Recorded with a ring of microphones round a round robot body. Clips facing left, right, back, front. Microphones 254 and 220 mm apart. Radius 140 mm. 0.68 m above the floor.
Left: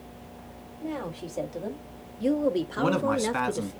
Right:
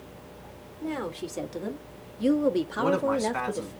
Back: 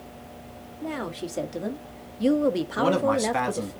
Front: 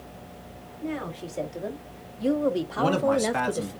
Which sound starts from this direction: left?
A man speaking, at 2.8 s.